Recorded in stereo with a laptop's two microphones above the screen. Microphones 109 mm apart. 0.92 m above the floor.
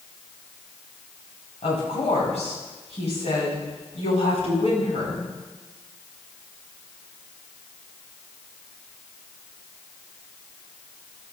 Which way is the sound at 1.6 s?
80° left.